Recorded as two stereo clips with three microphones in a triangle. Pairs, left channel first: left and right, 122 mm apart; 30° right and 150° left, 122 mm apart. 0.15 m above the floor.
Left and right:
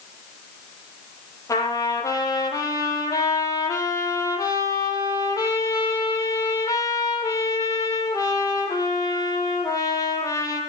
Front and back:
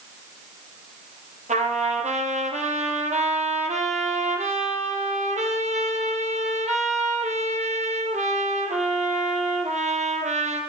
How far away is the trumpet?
About 5.5 m.